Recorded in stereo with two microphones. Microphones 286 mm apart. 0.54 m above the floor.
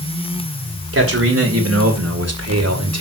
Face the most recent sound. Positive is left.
turn(degrees=-60)  # may be behind; listen again after turning